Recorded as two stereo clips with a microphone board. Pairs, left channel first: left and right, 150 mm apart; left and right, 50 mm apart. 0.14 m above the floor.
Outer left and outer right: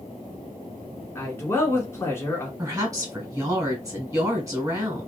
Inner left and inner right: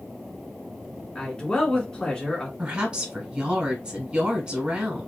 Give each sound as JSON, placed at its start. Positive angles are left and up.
{"t": 1.1, "sound": "a man speaking", "side_deg": 20, "distance_m": 1.3}
{"t": 2.6, "sound": "a woman speaking", "side_deg": -25, "distance_m": 1.2}